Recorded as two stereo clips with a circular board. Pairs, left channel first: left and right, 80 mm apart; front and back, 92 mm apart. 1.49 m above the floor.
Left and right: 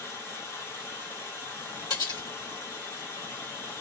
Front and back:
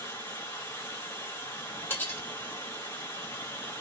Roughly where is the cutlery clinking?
Ahead left.